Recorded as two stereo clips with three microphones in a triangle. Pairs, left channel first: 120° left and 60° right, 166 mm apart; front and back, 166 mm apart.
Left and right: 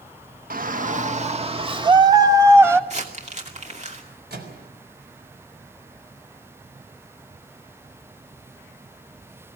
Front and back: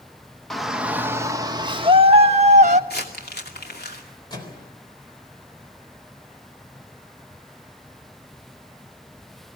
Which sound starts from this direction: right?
A shout, at 0.5 s.